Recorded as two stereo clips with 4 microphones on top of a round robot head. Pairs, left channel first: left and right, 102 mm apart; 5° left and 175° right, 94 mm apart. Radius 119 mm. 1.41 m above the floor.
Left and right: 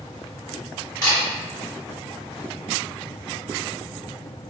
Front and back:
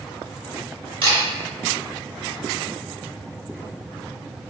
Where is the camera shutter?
155° left, 1.1 m.